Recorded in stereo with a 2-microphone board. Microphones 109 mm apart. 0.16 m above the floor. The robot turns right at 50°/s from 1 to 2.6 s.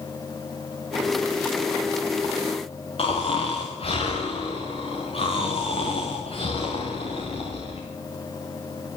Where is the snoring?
55° left (ahead or behind), 9.5 m.